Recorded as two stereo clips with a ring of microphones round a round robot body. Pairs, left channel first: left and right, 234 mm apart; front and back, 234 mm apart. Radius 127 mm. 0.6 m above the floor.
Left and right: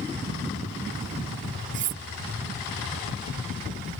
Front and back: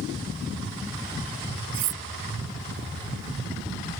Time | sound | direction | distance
1.7 | cutlery clinking | 135° right | ?